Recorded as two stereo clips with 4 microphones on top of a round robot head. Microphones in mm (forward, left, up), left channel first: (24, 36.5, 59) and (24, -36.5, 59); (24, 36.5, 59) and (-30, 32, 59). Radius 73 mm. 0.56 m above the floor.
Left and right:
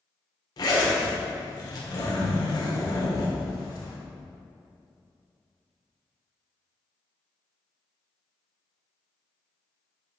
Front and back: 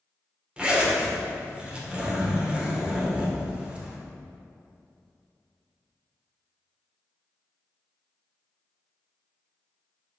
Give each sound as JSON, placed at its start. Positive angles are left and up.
{"t": 0.6, "sound": "a zipper", "azimuth_deg": 115, "distance_m": 1.5}